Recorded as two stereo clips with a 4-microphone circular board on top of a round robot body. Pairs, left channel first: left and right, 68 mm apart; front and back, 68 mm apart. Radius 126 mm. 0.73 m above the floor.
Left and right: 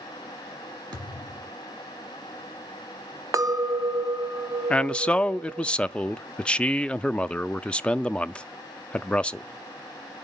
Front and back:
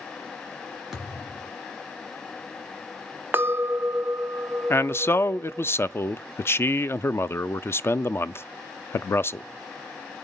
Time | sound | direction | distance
0.9 | a thud | 95° right | 1.9 m
3.3 | a clink | 120° right | 0.5 m
4.7 | a man speaking | 25° left | 0.5 m